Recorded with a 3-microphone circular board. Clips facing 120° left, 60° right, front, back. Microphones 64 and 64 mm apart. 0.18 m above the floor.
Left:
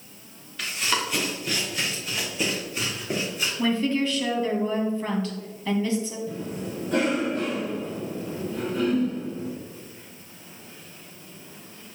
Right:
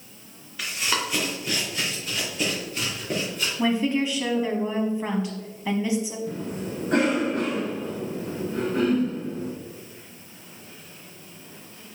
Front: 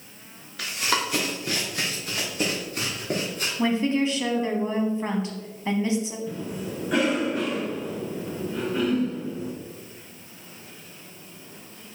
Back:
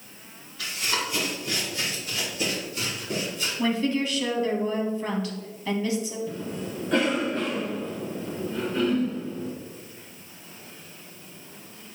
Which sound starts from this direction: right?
A cough, at 6.3 s.